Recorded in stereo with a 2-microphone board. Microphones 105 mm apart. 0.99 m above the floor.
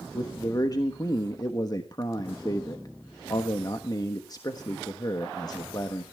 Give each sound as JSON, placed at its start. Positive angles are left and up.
{"t": 0.1, "sound": "a man speaking", "side_deg": 40, "distance_m": 1.3}